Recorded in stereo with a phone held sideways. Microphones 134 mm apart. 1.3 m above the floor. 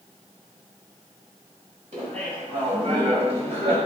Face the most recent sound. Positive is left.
turn(degrees=-50)  # may be behind; listen again after turning